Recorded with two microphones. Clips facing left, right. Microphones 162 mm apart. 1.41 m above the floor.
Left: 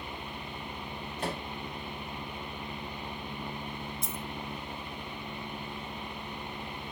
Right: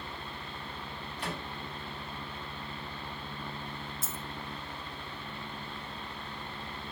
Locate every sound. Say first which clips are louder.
1.2 s a microwave: left 4 dB; 50° left (ahead or behind), 4.5 m
4.0 s a dropped coin: left 3 dB; 5° right (ahead or behind), 0.7 m